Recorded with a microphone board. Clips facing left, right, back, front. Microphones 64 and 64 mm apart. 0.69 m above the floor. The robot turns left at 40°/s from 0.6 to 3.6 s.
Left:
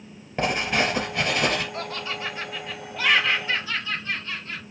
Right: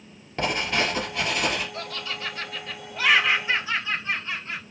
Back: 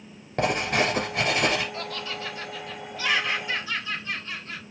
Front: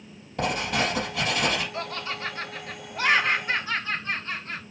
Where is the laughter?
45° left, 0.9 m; by 4.6 s 25° right, 0.9 m.